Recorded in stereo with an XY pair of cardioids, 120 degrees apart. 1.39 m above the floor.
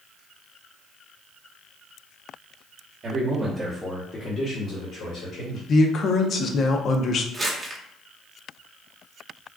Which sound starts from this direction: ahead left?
A man speaking, at 5.7 s.